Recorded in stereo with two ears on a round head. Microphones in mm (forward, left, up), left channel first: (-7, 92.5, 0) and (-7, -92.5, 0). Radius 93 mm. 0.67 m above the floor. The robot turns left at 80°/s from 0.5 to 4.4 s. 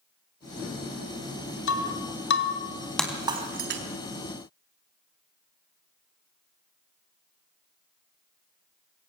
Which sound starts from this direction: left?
Breaking glass, at 1.7 s.